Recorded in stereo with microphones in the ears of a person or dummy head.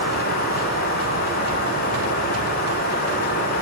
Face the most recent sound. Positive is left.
turn(degrees=45)  # may be behind; listen again after turning